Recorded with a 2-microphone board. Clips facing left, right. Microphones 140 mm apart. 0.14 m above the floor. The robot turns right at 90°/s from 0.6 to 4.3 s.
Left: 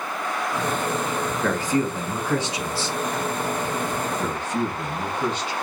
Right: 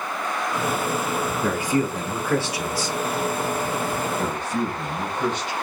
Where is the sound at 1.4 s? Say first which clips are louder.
Even; 20° right (ahead or behind), 1.2 m; by 3.0 s 30° left (ahead or behind), 1.2 m.